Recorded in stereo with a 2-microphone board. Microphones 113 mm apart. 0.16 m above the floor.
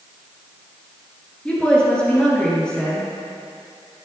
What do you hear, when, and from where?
1.4 s a woman speaking: 10° left (ahead or behind), 3 m